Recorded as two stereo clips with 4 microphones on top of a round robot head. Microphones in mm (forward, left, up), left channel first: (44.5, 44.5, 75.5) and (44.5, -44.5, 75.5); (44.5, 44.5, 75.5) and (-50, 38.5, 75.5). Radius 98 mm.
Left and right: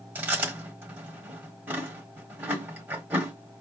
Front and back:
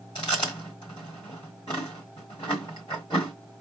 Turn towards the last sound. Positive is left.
turn(degrees=-35)